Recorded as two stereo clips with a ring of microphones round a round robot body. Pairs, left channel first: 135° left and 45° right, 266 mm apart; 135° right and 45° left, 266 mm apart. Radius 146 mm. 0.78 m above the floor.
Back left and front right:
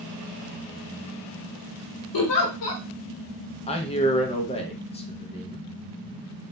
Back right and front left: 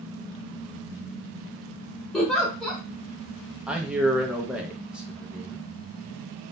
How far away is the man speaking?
About 0.6 m.